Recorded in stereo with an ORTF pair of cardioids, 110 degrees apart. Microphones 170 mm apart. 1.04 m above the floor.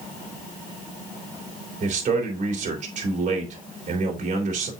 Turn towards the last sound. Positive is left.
turn(degrees=-45)